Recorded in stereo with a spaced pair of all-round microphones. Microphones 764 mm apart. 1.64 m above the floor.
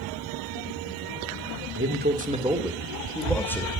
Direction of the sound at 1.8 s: 15° right (ahead or behind).